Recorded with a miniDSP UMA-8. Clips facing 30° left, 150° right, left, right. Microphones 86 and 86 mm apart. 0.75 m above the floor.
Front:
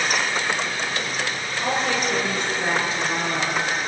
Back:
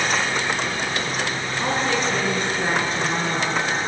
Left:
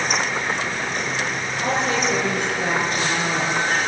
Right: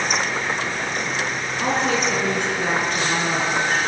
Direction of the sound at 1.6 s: 100° right.